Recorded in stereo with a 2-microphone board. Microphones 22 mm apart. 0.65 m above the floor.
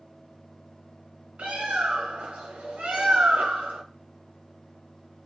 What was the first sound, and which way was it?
A bird, 80° right.